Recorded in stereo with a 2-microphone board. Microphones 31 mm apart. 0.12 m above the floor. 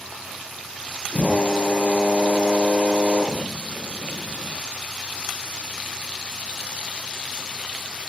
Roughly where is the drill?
Left.